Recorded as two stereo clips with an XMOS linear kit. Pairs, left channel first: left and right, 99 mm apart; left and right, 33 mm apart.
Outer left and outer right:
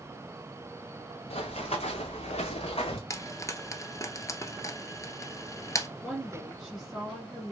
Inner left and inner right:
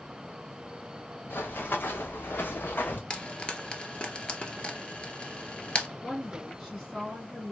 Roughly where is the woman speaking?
Centre.